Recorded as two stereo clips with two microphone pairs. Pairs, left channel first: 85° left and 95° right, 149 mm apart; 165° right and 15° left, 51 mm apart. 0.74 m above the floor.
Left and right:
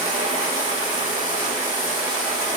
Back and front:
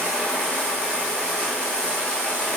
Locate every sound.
0.0 s running water: 110° right, 2 m